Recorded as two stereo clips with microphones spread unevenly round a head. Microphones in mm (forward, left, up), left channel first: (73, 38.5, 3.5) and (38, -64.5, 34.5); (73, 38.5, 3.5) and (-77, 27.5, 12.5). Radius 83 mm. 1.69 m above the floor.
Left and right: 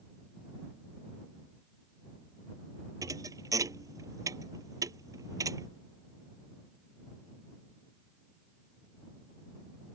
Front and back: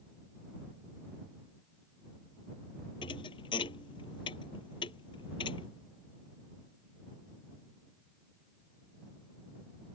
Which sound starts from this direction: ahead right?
A thud, at 3.0 s.